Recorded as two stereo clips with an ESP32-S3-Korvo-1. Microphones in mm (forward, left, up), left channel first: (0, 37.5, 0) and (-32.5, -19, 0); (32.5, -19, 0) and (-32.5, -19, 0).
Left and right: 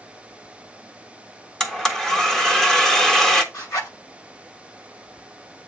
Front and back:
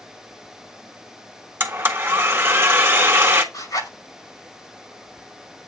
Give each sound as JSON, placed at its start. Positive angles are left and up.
{"t": 1.6, "sound": "a blender", "azimuth_deg": 140, "distance_m": 1.1}
{"t": 3.5, "sound": "a zipper", "azimuth_deg": 25, "distance_m": 5.5}